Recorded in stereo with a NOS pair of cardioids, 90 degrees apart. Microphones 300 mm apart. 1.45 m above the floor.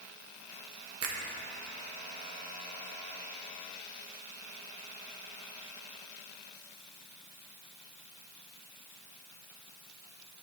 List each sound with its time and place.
1.0 s a finger snap: 55° right, 1.7 m